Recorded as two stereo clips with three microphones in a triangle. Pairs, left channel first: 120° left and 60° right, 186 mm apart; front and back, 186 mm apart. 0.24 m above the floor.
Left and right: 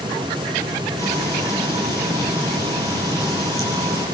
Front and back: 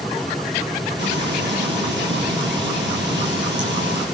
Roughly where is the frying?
Behind.